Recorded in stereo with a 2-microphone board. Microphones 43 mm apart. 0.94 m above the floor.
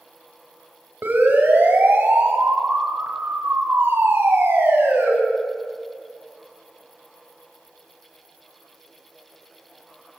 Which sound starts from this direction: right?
A siren, at 1.0 s.